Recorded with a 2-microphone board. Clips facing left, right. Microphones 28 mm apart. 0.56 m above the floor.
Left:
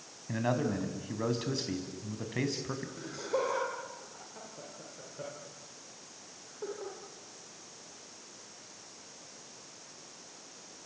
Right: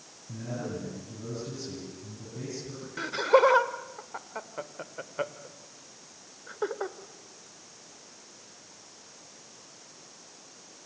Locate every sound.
0.3 s a man speaking: 70° left (ahead or behind), 4.5 m
3.0 s laughter: 65° right (ahead or behind), 1.9 m